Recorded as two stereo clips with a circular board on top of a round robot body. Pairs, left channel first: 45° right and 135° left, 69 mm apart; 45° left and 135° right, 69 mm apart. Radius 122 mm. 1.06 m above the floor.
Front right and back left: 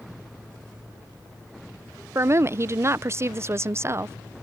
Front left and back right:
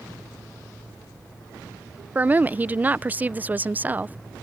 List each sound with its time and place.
2.1 s a woman speaking: 170° left